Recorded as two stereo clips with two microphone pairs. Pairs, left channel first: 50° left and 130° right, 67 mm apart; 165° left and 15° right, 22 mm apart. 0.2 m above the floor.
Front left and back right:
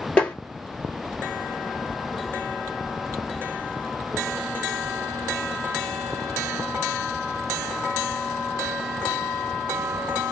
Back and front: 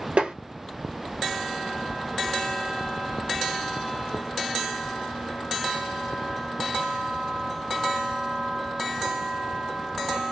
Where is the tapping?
25° right, 1.6 m.